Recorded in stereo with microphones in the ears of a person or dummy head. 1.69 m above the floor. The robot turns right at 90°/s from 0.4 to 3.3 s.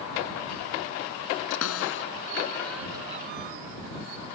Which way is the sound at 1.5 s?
65° left (ahead or behind).